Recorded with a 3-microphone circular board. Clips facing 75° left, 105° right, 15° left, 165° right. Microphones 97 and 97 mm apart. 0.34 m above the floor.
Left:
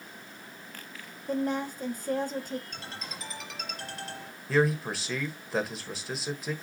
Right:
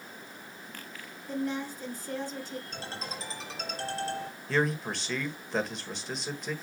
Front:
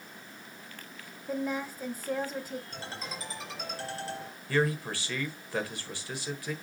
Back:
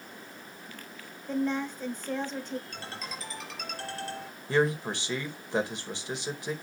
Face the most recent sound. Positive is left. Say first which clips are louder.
# left 3 dB, back 2 dB
turn(degrees=160)